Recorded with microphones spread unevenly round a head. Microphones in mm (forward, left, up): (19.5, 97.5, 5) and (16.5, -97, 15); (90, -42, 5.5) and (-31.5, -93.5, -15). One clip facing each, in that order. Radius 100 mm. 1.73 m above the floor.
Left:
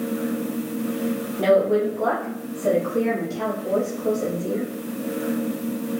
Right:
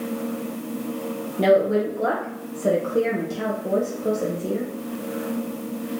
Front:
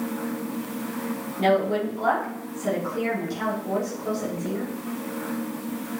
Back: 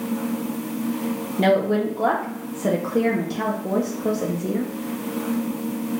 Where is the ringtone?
No ringtone in this recording.